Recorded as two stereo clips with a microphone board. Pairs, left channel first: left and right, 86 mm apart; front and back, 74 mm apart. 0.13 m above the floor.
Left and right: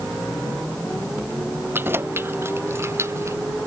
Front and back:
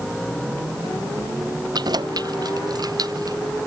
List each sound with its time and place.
1.7 s keys jangling: 155° right; by 3.4 s 145° right